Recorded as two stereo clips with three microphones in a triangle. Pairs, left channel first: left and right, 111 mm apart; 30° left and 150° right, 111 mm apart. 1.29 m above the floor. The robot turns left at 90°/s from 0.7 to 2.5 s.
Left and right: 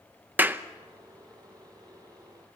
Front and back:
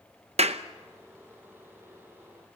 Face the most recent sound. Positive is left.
turn(degrees=35)